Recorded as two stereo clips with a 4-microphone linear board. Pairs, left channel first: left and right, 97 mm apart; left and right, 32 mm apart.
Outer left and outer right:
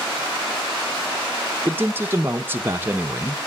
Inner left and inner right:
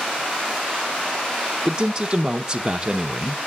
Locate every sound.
1.6 s a man speaking: 25° right (ahead or behind), 0.7 m